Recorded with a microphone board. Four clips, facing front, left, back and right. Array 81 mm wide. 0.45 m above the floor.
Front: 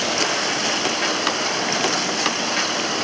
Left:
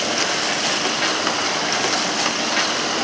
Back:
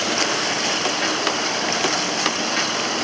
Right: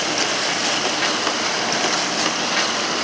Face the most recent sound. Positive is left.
No sound to turn to.